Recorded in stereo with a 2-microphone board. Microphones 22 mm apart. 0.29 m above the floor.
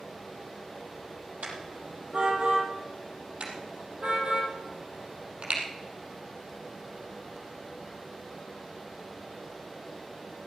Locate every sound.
1.4 s a car horn: 80° right, 5.5 m; by 2.7 s 85° right, 6 m
3.4 s a car horn: 60° right (ahead or behind), 4.5 m